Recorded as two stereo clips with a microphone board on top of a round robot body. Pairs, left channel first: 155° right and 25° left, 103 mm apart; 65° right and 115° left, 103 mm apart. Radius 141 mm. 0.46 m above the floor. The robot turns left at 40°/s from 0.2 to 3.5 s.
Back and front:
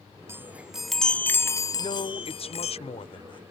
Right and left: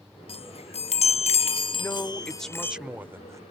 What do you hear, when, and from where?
0.3 s a chime: 45° right; by 2.8 s 145° right
1.8 s a man speaking: 125° right; by 3.4 s 170° left